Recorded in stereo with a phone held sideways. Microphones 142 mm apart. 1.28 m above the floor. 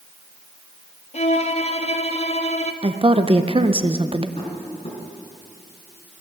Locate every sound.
1.1 s a violin: 45° left (ahead or behind), 0.7 m
2.8 s a woman speaking: 35° right (ahead or behind), 0.7 m
4.4 s tapping: 35° left (ahead or behind), 4 m